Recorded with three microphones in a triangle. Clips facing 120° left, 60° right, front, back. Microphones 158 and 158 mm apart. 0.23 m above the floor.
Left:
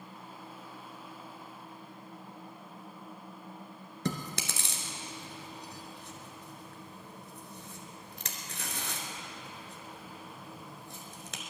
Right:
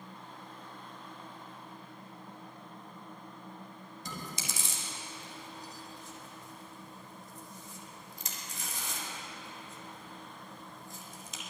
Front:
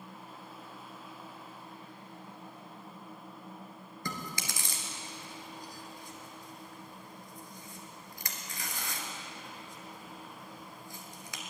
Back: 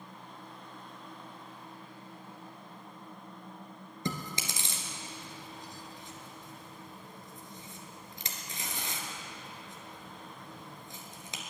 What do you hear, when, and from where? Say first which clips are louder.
4.0 s chewing: left 8 dB, back 3 dB; 115° left, 1.8 m